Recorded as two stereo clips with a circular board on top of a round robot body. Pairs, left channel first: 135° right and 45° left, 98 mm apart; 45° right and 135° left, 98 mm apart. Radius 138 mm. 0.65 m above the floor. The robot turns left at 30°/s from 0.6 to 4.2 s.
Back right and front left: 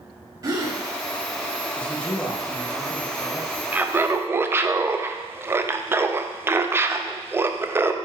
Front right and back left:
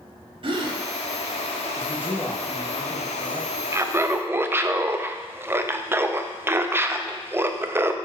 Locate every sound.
0.4 s a gasp: 100° left, 0.9 m; by 0.8 s 90° left, 0.9 m
1.8 s a man speaking: 75° right, 1.0 m; by 3.5 s 125° right, 1.0 m
3.7 s laughter: 105° left, 0.5 m; by 8.0 s 90° left, 0.5 m